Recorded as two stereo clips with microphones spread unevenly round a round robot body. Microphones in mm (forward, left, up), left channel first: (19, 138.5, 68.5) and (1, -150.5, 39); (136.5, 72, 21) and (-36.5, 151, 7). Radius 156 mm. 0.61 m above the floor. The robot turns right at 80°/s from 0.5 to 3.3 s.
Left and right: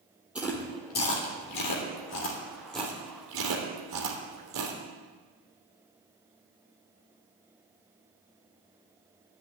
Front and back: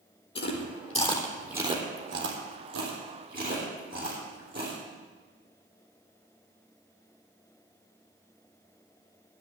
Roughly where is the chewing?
Ahead.